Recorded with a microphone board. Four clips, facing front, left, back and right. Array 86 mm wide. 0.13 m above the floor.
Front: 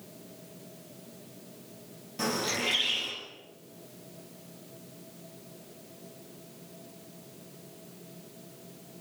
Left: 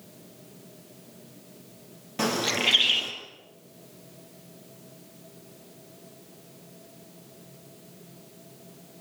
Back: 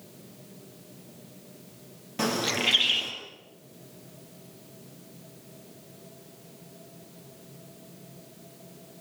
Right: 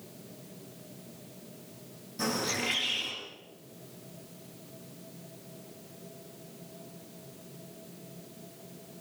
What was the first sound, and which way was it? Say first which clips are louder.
A bird: left 5 dB, back 3 dB; 120° left.